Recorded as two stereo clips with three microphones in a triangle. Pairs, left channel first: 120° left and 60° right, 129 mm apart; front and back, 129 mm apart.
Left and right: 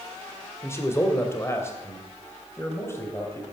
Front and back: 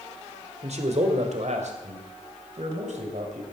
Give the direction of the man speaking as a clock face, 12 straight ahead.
6 o'clock.